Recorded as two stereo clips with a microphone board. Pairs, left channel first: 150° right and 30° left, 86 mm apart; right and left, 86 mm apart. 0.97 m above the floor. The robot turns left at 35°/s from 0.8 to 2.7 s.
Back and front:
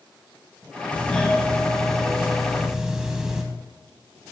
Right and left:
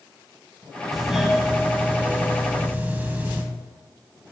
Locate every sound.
0.9 s a doorbell: 165° left, 1.1 m; by 3.4 s 105° left, 1.1 m